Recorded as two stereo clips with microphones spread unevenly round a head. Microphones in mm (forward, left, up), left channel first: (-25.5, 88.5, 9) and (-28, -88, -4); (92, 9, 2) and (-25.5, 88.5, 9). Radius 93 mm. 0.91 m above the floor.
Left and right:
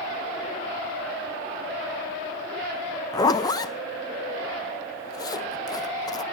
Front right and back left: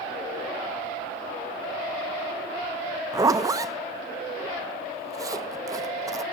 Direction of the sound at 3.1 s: 130° left.